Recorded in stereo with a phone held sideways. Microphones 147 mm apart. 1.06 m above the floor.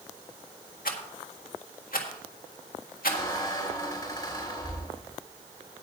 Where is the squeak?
25° left (ahead or behind), 4 m.